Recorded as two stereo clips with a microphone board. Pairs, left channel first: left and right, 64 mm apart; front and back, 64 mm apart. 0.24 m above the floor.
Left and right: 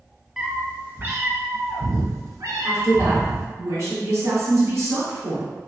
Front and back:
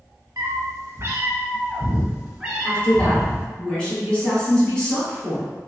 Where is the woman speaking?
75° right, 1.5 m.